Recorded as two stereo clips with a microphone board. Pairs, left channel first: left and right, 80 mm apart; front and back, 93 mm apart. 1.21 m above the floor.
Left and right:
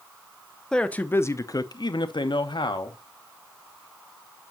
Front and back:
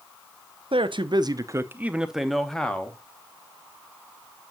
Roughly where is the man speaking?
Behind.